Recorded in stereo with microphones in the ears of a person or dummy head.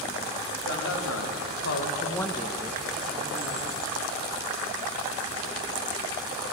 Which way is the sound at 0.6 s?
70° left (ahead or behind).